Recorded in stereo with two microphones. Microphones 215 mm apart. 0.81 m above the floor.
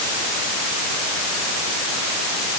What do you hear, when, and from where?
Only background noise.